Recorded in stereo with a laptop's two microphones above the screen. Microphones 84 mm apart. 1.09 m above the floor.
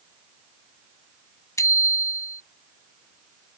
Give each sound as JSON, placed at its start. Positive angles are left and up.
{"t": 1.6, "sound": "a bicycle bell", "side_deg": 40}